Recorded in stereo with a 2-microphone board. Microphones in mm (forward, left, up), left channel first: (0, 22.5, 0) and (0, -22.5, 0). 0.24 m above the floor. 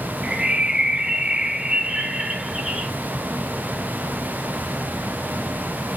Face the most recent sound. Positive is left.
turn(degrees=-20)  # may be behind; listen again after turning